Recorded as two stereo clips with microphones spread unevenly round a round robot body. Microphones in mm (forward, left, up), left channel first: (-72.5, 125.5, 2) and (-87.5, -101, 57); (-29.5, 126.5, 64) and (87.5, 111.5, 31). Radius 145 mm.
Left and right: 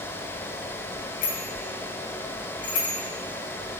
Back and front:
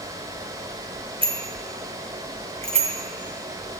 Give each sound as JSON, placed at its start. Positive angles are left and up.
{"t": 1.2, "sound": "a bicycle bell", "azimuth_deg": 30, "distance_m": 2.5}